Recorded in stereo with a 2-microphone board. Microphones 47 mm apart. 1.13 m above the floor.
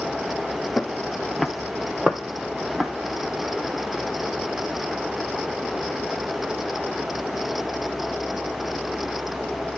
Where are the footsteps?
15° left (ahead or behind), 1.2 m; by 2.9 s 10° right (ahead or behind), 2 m.